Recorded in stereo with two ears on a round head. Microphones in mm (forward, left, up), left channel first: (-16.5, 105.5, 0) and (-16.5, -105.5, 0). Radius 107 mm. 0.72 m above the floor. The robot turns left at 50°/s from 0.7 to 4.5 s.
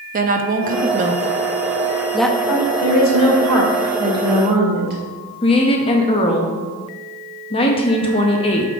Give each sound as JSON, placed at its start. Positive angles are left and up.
{"t": 0.1, "sound": "a woman speaking", "side_deg": -35, "distance_m": 0.6}
{"t": 2.5, "sound": "a woman speaking", "azimuth_deg": 65, "distance_m": 2.0}
{"t": 5.4, "sound": "a woman speaking", "side_deg": 20, "distance_m": 0.7}